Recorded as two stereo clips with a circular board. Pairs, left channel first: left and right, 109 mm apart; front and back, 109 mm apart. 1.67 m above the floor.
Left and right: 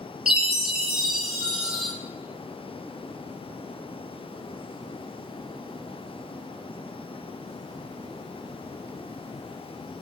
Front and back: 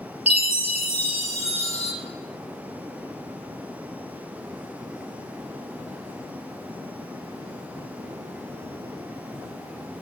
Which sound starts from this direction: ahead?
A chime, at 0.3 s.